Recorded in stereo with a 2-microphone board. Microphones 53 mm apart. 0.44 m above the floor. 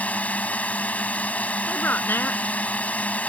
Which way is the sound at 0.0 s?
30° left (ahead or behind).